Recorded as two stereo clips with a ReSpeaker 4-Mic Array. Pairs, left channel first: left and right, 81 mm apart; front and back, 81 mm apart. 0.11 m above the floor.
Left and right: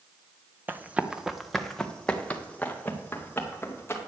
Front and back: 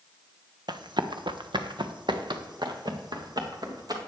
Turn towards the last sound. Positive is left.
turn(degrees=150)